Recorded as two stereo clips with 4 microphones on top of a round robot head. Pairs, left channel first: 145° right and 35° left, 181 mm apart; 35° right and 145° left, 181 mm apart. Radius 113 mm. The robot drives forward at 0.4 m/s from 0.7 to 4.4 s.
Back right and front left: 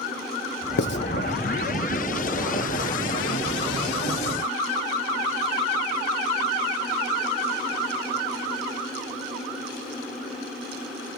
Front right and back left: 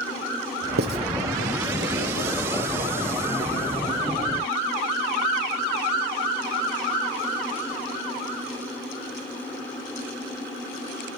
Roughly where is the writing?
Behind.